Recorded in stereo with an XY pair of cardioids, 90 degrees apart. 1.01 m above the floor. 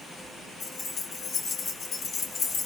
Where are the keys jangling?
60° left, 1.7 m.